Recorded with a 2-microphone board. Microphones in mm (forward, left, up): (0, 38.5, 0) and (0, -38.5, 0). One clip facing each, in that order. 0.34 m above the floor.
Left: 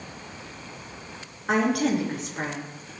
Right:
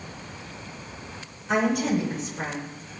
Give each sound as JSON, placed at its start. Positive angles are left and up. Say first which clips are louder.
{"t": 1.5, "sound": "a woman speaking", "louder": "left 1 dB", "side_deg": 75, "distance_m": 5.0}